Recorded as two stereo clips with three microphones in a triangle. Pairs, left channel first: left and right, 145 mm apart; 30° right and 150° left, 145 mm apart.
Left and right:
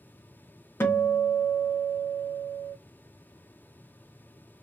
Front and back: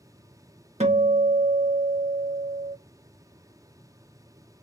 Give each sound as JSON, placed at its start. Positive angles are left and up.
{"t": 0.8, "sound": "a guitar", "azimuth_deg": 155, "distance_m": 0.7}